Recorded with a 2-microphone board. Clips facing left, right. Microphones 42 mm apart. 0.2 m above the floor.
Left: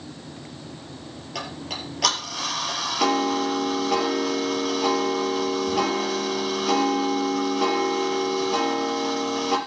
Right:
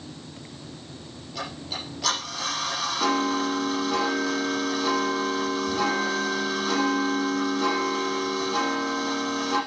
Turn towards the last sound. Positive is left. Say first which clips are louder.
# left 1 dB
turn(degrees=75)  # may be behind; listen again after turning